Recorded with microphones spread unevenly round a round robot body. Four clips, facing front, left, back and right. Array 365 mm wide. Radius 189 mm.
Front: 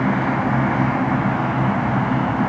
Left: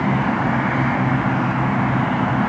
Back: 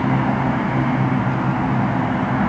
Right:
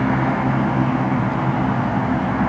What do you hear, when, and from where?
Only background noise.